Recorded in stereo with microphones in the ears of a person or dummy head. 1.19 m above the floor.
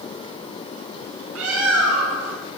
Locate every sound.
1.4 s a bird: 80° right, 8 m